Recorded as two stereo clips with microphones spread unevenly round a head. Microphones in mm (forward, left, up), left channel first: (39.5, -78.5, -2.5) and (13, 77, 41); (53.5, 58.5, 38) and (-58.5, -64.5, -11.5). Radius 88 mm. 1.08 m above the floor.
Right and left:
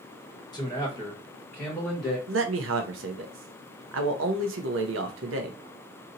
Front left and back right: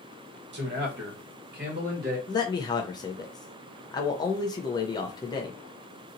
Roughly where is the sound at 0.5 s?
Behind right.